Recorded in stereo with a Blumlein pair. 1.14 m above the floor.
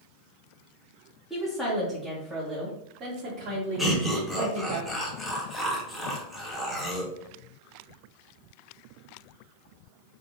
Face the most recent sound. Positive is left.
turn(degrees=0)